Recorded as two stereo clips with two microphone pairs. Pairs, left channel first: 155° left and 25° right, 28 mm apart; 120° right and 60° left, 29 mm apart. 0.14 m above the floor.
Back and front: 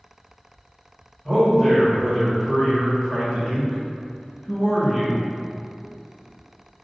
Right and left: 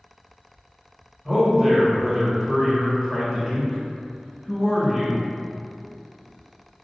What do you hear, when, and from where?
1.2 s a man speaking: 125° left, 1.1 m